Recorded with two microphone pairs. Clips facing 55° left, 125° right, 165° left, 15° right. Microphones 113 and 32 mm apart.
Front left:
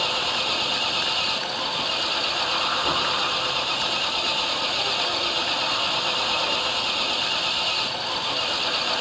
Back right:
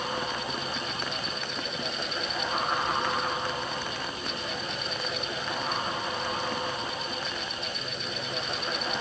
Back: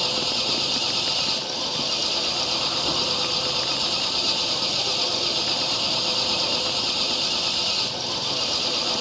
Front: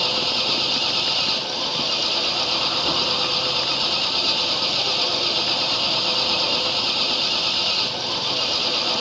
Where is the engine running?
55° left.